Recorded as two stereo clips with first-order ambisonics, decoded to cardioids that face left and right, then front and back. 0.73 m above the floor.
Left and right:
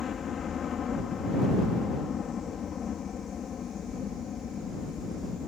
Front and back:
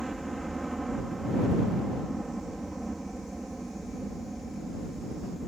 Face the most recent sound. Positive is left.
turn(degrees=105)